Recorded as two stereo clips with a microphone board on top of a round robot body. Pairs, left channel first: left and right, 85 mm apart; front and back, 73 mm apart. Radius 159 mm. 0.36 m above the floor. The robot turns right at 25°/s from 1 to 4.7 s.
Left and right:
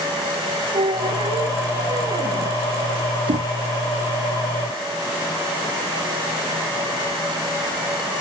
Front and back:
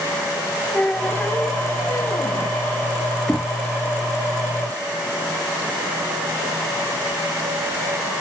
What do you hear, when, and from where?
0.7 s a squeak: 75° right; by 2.6 s 35° right
3.3 s knocking: 80° right; by 3.5 s 75° right